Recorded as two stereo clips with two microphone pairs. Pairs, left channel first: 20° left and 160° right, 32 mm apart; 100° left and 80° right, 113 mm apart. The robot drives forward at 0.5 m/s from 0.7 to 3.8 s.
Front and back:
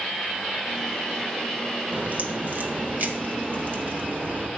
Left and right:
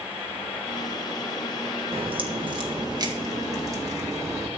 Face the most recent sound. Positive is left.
turn(degrees=-145)